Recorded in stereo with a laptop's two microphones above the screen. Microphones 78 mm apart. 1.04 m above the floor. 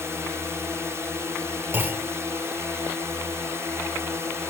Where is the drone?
35° right (ahead or behind).